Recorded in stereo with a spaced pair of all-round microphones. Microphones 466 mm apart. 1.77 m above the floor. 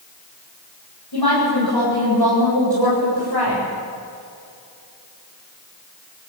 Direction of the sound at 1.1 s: 50° left (ahead or behind).